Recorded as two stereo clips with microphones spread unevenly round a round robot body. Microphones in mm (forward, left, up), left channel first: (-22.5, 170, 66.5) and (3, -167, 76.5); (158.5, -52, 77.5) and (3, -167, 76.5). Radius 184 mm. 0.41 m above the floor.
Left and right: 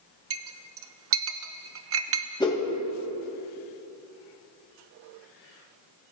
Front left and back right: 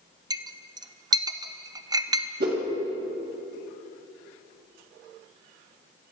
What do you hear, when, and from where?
0.3 s a clink: 85° right, 0.8 m
2.4 s a whoosh: 170° left, 2 m